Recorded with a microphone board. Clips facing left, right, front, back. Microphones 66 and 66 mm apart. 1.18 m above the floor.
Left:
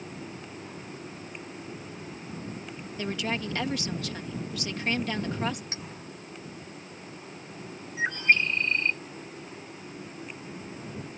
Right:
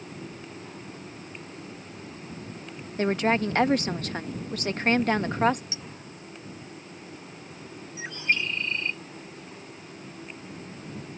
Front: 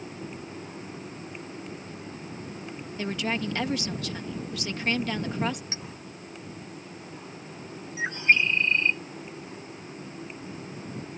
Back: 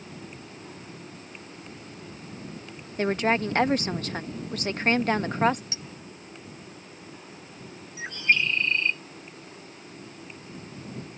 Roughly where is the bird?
Ahead left.